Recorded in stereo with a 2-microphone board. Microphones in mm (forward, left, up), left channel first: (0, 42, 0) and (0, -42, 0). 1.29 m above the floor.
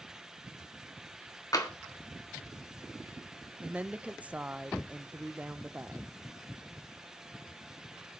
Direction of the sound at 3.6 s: 20° right (ahead or behind).